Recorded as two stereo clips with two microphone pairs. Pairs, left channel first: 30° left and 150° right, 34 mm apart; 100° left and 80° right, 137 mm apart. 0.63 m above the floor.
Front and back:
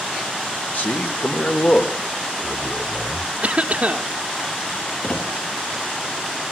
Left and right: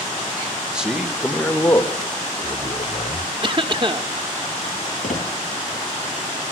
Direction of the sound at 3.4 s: 120° right.